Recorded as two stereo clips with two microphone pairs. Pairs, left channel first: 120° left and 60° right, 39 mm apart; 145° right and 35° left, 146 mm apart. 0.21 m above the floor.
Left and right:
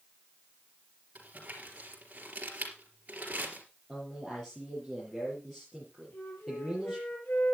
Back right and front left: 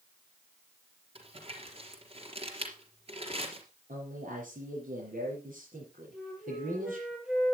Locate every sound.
1.1 s crumpling: 10° right, 3.5 m
3.9 s a man speaking: 45° left, 5 m
6.1 s a flute: 120° left, 6.5 m